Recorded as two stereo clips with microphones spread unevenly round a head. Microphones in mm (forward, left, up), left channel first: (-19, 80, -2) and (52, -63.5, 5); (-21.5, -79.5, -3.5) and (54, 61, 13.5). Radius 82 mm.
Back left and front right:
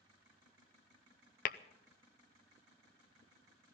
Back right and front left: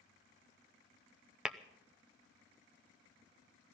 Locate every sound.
1.4 s tapping: 150° left, 0.6 m